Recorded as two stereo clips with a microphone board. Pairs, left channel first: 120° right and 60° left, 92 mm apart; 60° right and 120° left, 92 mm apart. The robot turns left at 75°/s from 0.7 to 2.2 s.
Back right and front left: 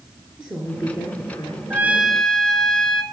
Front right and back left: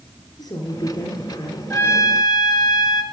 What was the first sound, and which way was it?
A woman speaking, 20° right.